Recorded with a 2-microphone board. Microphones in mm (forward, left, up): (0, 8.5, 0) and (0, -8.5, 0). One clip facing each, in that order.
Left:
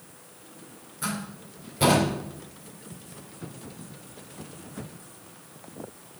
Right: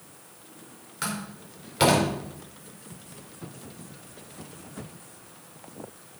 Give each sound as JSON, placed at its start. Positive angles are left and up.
{"t": 1.0, "sound": "a door slam", "side_deg": -60, "distance_m": 4.5}